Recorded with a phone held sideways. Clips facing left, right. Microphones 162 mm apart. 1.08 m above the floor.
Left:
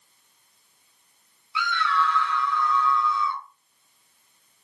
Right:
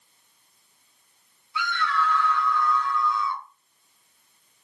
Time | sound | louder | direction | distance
1.6 | a scream | left 1 dB | 45° right (ahead or behind) | 0.9 m